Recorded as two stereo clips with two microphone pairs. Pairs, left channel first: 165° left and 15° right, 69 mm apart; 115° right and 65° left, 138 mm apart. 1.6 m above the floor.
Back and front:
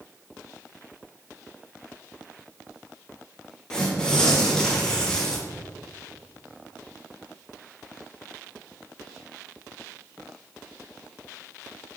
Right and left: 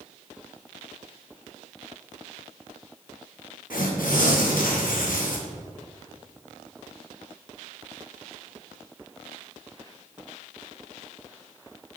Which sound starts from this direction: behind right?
Tearing paper, at 3.7 s.